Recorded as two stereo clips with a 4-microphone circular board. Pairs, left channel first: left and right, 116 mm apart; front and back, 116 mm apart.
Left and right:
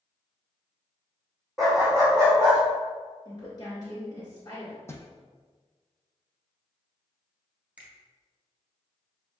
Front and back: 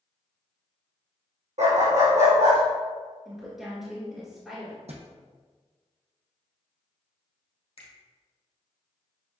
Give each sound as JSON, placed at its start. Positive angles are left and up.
{"t": 1.6, "sound": "a dog barking", "azimuth_deg": 180, "distance_m": 1.7}
{"t": 3.2, "sound": "a woman speaking", "azimuth_deg": 95, "distance_m": 1.8}
{"t": 4.9, "sound": "a thud", "azimuth_deg": 155, "distance_m": 0.7}
{"t": 7.8, "sound": "a finger snap", "azimuth_deg": -15, "distance_m": 1.8}